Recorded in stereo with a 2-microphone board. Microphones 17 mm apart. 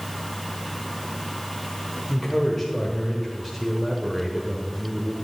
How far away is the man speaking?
About 1.2 m.